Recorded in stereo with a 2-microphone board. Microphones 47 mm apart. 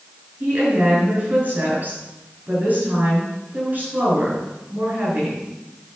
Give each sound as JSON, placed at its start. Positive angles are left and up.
{"t": 0.4, "sound": "a woman speaking", "side_deg": -40, "distance_m": 5.5}